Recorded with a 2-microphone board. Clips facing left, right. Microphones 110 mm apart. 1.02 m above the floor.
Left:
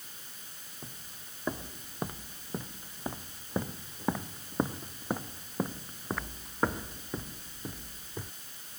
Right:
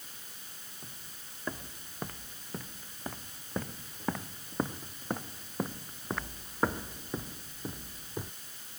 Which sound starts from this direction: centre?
Footsteps, at 0.8 s.